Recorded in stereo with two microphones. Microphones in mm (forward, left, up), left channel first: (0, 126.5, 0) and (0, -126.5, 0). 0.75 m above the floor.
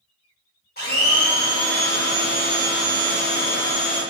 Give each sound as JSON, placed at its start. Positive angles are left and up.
{"t": 0.8, "sound": "a blender", "side_deg": 40, "distance_m": 1.0}